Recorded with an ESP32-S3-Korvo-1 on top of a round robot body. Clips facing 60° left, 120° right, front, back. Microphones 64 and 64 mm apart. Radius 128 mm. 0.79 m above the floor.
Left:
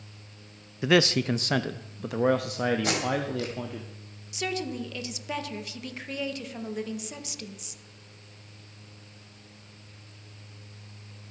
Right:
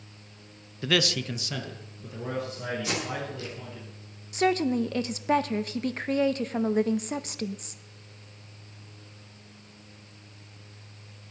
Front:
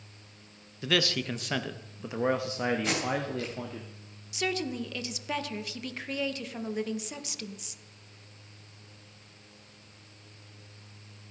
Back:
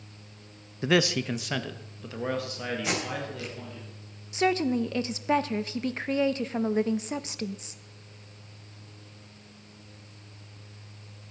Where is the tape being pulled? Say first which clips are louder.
Left 4 dB, front 1 dB; 95° left, 3.5 m.